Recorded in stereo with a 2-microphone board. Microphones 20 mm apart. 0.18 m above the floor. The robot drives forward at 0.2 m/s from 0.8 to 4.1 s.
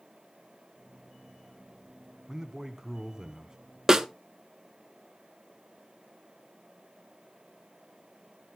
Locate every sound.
2.3 s a man speaking: 30° right (ahead or behind), 1.3 m
3.9 s a snare drum: 35° right (ahead or behind), 0.5 m